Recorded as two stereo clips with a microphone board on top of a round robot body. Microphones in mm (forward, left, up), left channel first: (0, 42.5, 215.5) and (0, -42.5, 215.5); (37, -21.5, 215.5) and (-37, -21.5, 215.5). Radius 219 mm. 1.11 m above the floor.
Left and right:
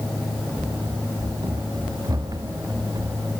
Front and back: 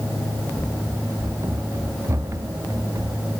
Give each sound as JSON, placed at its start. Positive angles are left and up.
{"t": 0.6, "sound": "running footsteps", "azimuth_deg": -130}